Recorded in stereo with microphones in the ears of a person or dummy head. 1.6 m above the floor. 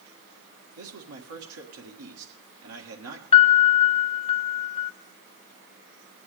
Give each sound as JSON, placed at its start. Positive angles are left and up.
{"t": 0.8, "sound": "a man speaking", "side_deg": -80, "distance_m": 1.5}
{"t": 3.3, "sound": "a piano", "side_deg": 30, "distance_m": 0.5}